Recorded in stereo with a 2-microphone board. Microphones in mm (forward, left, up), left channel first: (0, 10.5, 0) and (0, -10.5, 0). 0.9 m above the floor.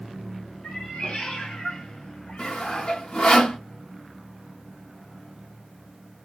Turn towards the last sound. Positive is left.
turn(degrees=70)  # may be behind; listen again after turning